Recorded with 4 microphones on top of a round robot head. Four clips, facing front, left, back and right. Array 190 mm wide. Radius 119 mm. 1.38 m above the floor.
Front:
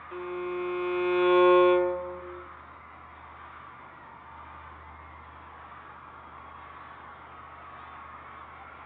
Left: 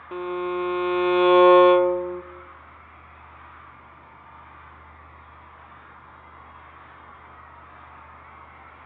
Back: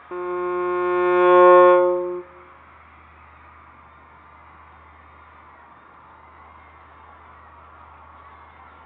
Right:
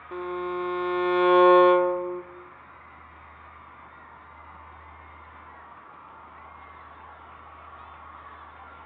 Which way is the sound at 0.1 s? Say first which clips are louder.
Left 3 dB, back 9 dB; 165° left.